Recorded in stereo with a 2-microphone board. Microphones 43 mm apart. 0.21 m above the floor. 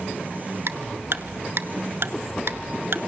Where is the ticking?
70° right (ahead or behind), 1.1 m.